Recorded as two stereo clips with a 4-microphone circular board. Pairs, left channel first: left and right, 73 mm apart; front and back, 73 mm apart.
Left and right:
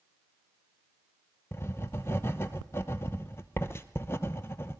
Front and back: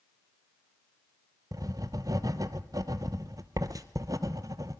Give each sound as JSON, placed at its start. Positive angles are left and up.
{"t": 1.5, "sound": "writing", "azimuth_deg": 145, "distance_m": 0.7}